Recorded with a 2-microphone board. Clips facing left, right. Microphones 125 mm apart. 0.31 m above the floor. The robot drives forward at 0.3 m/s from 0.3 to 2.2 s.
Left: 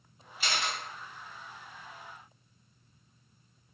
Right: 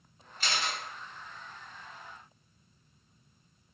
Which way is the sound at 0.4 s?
10° left (ahead or behind).